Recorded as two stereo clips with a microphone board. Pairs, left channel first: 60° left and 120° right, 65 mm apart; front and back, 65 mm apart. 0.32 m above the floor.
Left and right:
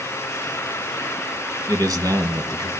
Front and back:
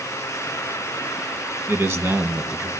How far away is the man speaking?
About 2.5 m.